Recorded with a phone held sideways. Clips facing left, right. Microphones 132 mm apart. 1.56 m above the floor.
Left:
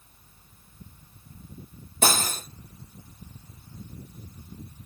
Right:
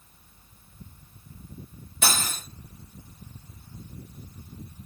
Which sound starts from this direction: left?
Cutlery clinking, at 2.0 s.